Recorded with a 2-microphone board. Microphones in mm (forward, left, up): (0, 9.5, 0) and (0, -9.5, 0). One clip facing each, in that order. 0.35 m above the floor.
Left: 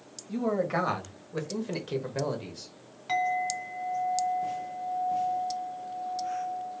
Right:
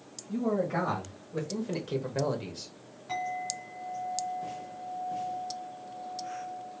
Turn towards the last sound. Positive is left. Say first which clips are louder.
# left 6 dB
turn(degrees=60)  # may be behind; listen again after turning